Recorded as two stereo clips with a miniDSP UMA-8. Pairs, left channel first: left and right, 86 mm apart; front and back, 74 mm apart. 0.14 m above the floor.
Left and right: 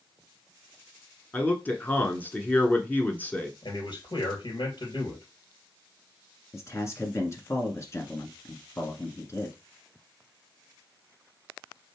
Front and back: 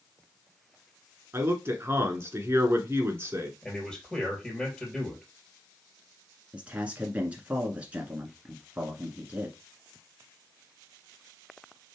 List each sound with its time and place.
1.3 s a man speaking: 150° left, 1.3 m
3.6 s a man speaking: 85° left, 3 m
6.5 s a man speaking: 120° left, 1.4 m